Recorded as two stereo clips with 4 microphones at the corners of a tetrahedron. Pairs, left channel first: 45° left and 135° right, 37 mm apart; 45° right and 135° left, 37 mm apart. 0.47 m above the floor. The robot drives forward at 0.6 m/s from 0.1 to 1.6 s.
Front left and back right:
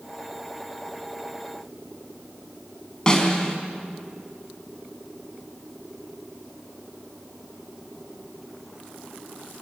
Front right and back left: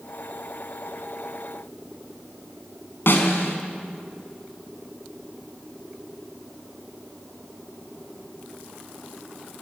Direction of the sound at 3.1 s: 25° right.